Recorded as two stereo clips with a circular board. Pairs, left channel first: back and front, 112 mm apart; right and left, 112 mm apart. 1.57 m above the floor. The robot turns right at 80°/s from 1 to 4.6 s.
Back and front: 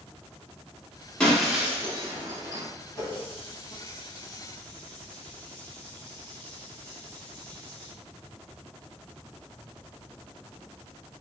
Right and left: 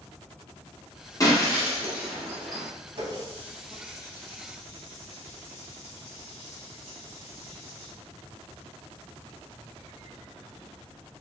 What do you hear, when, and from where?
1.2 s breaking glass: 105° right, 0.9 m; by 2.7 s 15° left, 0.9 m
3.0 s a running tap: 130° left, 1.3 m; by 7.9 s 100° right, 1.3 m